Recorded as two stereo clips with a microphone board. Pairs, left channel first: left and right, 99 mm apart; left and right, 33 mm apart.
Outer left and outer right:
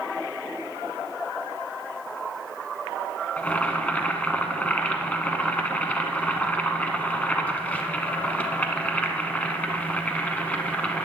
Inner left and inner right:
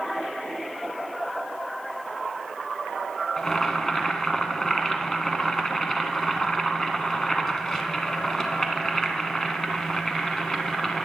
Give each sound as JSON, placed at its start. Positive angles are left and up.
{"t": 3.4, "sound": "boiling", "side_deg": 15, "distance_m": 0.8}